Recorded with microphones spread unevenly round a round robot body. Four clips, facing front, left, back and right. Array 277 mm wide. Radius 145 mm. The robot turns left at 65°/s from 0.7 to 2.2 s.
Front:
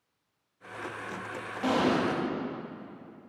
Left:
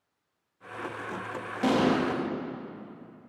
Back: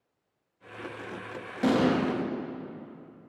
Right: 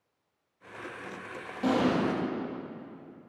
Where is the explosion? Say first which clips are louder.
Left 2 dB, back 2 dB; 150° left, 1.3 m; by 2.0 s 125° left, 1.3 m.